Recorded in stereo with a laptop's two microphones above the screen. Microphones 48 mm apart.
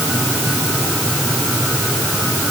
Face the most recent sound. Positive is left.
No sound to turn to.